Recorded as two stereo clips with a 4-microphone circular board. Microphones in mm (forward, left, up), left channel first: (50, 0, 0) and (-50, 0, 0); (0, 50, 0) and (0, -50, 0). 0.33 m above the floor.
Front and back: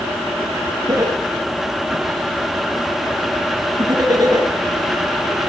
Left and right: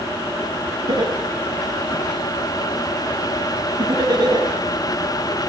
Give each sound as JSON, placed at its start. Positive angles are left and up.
{"t": 0.9, "sound": "laughter", "azimuth_deg": -130, "distance_m": 4.0}